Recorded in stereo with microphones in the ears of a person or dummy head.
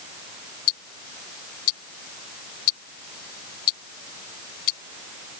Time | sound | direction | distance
0.7 | ticking | 60° left (ahead or behind) | ?